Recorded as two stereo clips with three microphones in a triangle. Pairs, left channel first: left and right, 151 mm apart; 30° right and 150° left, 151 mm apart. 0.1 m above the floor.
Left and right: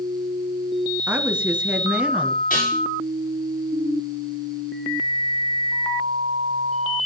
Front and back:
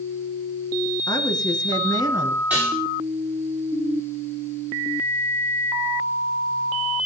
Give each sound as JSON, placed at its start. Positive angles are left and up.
{"t": 1.1, "sound": "a woman speaking", "azimuth_deg": -15, "distance_m": 1.5}
{"t": 2.5, "sound": "dishes clattering", "azimuth_deg": 70, "distance_m": 7.5}